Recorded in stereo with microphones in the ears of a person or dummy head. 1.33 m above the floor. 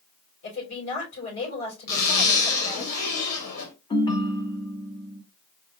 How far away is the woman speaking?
About 4.5 m.